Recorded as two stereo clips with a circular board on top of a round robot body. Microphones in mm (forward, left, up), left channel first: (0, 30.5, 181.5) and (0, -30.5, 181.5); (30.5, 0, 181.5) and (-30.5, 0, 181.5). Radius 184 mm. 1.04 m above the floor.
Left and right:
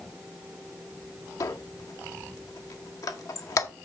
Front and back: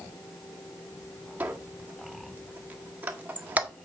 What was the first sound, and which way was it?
A squeak, 115° left.